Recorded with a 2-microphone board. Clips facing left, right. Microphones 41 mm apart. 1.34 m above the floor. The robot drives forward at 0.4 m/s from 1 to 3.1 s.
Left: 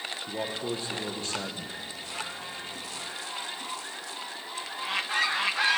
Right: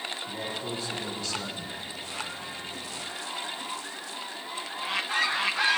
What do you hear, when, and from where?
0.2 s a man speaking: 35° left (ahead or behind), 1.0 m; by 1.8 s 45° left (ahead or behind), 0.7 m